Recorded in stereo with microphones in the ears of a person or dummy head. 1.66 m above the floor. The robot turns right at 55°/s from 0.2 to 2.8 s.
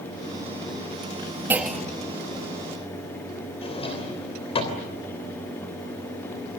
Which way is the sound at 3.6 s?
25° left (ahead or behind).